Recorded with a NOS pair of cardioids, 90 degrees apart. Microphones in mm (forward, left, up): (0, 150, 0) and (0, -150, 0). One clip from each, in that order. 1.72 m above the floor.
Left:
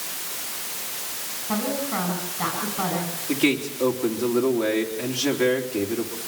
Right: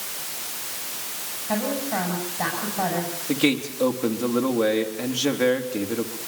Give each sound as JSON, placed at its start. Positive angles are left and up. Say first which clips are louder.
{"t": 1.5, "sound": "a woman speaking", "louder": "right 1 dB", "azimuth_deg": -10, "distance_m": 7.5}
{"t": 3.3, "sound": "a man speaking", "louder": "even", "azimuth_deg": -20, "distance_m": 3.5}